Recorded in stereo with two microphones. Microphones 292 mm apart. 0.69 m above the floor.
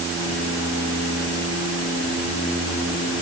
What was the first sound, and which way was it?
Only background noise.